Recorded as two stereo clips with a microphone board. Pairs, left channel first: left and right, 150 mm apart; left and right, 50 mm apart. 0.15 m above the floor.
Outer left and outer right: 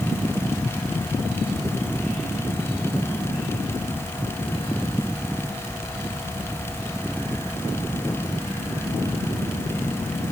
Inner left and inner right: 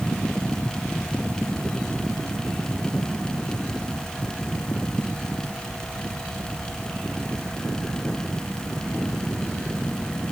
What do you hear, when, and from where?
Only background noise.